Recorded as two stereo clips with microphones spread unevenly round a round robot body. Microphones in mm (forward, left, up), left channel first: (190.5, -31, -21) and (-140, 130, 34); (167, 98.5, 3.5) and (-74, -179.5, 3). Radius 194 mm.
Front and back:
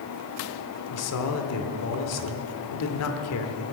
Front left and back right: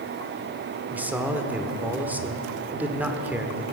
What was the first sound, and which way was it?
A man speaking, 45° right.